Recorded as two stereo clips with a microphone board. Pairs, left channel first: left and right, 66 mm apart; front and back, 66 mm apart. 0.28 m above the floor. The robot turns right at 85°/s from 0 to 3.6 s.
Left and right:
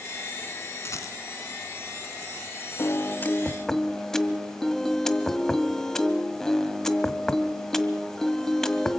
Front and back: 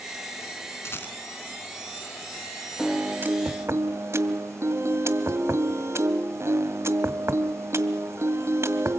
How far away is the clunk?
I don't hear a clunk.